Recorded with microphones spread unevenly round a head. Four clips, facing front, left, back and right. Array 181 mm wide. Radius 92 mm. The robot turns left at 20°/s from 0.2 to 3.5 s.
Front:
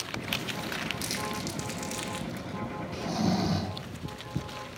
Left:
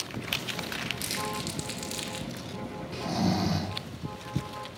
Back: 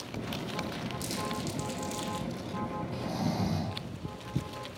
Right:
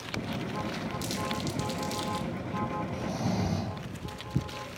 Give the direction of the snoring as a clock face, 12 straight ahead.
10 o'clock.